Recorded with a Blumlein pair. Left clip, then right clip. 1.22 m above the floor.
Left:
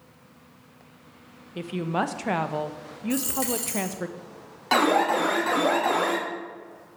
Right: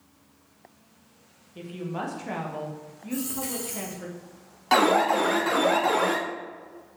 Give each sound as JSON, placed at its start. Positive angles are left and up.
{"t": 1.6, "sound": "a woman speaking", "azimuth_deg": 60, "distance_m": 0.9}
{"t": 3.1, "sound": "a dropped coin", "azimuth_deg": 35, "distance_m": 2.0}
{"t": 4.7, "sound": "an alarm", "azimuth_deg": 0, "distance_m": 1.3}